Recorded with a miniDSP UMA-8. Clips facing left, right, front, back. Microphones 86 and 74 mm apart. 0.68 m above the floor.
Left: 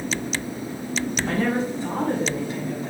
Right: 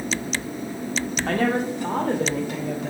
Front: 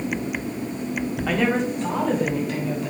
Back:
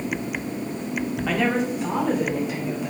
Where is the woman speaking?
85° right, 2 m; by 2.9 s 100° right, 3.5 m.